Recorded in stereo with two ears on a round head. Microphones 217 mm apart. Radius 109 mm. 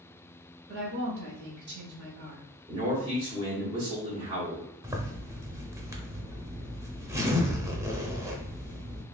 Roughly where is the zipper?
Centre.